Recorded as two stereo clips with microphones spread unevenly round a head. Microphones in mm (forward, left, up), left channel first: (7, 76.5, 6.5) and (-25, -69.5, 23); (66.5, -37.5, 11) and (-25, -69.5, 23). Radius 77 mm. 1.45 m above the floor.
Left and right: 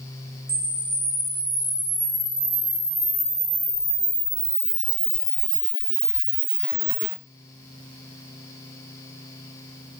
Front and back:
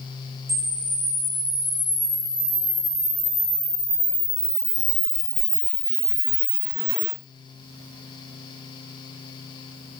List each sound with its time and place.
0.5 s a camera shutter: straight behind, 3 m